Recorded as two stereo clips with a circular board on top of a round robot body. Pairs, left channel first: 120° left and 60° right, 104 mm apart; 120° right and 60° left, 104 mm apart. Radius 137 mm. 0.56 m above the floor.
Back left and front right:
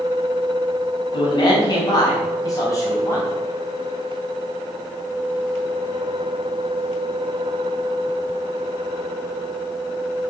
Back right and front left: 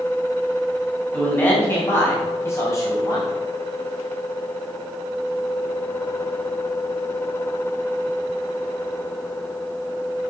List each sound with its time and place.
1.1 s a man speaking: 165° left, 4.5 m; by 3.3 s 175° right, 3.5 m